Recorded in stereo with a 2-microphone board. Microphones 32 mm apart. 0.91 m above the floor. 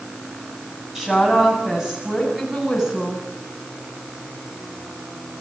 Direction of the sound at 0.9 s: 15° right (ahead or behind).